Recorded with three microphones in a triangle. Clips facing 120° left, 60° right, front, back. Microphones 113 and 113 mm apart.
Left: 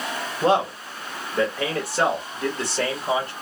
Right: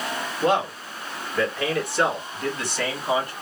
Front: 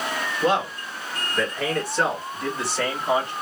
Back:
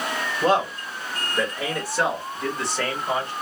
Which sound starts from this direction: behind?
A man speaking, at 0.4 s.